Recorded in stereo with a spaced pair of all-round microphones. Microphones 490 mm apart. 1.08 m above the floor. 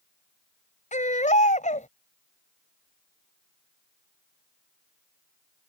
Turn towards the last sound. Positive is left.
turn(degrees=15)  # may be behind; listen again after turning